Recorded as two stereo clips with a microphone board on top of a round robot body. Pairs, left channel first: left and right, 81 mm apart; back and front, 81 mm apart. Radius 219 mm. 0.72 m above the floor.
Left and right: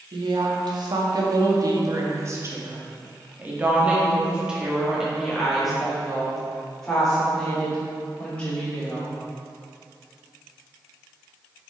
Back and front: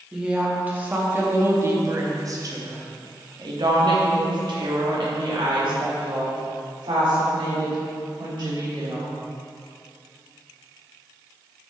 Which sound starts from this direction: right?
A woman speaking, at 0.1 s.